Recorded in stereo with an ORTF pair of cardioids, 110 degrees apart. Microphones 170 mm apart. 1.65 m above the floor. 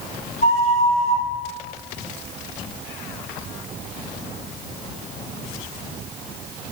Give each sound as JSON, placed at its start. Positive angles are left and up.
{"t": 0.4, "sound": "a flute", "azimuth_deg": 35, "distance_m": 4.5}